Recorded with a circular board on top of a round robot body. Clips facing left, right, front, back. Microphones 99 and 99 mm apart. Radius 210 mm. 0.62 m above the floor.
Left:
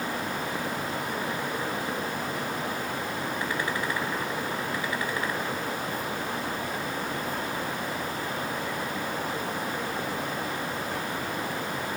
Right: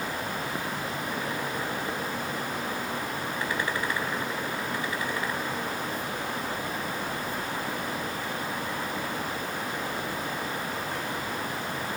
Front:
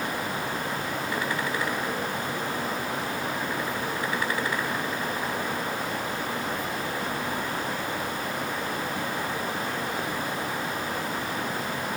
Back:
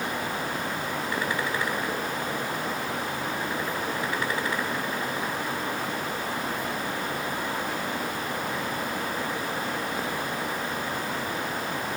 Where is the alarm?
No alarm in this recording.